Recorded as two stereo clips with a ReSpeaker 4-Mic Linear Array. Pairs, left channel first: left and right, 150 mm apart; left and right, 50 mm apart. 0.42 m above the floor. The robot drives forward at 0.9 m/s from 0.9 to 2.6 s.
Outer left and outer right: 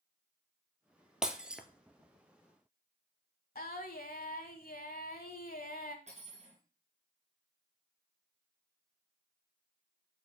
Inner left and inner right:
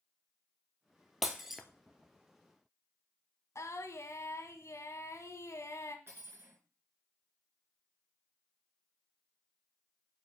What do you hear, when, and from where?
1.2 s breaking glass: 5° right (ahead or behind), 1.2 m
3.5 s singing: 80° left, 1.1 m
6.1 s cutlery clinking: 50° right (ahead or behind), 3.5 m